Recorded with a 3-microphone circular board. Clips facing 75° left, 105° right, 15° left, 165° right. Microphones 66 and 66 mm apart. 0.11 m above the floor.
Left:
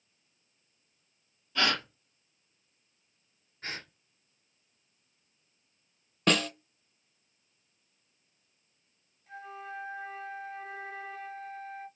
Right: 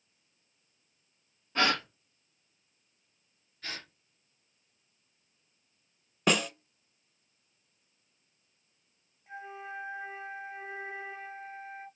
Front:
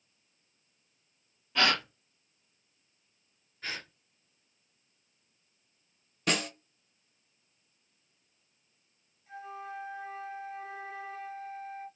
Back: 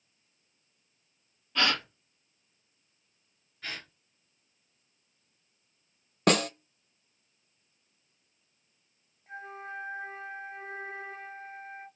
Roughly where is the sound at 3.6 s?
Left.